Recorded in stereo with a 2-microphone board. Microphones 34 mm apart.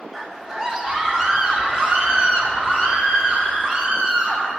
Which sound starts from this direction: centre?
A scream, at 0.1 s.